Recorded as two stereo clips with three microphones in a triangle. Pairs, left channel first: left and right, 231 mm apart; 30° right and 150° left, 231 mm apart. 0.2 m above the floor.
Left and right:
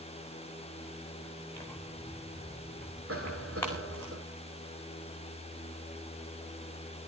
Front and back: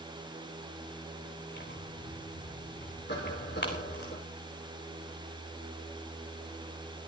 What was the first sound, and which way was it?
Tearing paper, 10° left.